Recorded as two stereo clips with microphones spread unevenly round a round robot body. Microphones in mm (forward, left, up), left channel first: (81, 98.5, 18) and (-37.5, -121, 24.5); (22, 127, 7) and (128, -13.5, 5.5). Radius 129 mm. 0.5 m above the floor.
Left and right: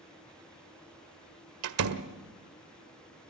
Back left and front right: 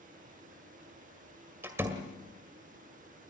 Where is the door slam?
130° right, 1.6 m.